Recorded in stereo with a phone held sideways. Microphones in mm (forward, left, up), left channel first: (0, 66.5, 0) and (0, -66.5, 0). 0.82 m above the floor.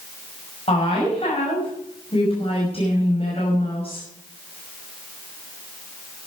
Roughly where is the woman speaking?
Left.